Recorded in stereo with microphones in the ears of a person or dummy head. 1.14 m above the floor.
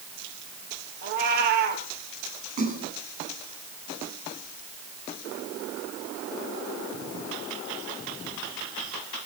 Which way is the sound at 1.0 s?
55° right (ahead or behind).